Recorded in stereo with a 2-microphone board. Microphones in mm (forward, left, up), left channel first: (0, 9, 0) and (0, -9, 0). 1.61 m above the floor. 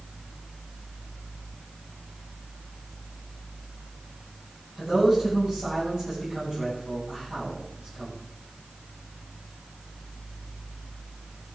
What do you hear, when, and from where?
4.8 s a man speaking: 30° right (ahead or behind), 9.5 m